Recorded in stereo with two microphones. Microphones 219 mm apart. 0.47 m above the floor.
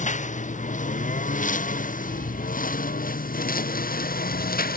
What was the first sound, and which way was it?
A lawn mower, 35° left (ahead or behind).